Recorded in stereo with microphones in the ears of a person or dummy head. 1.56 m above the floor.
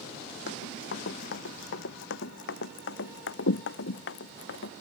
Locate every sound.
0.5 s running footsteps: 60° left (ahead or behind); by 4.7 s 70° left (ahead or behind)